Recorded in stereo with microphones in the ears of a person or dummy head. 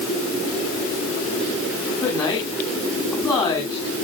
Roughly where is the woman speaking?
Centre.